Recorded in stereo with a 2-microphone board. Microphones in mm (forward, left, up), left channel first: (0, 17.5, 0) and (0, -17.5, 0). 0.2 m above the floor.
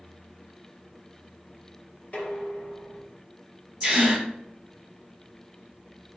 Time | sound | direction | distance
2.1 | dishes clattering | 35° left (ahead or behind) | 1.2 m
3.8 | a gasp | 25° right (ahead or behind) | 1.6 m